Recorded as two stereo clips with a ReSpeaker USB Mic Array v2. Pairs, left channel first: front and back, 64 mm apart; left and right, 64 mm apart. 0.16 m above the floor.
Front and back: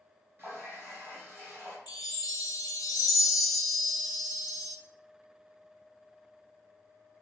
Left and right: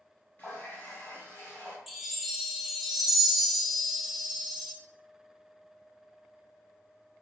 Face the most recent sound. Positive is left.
turn(degrees=-5)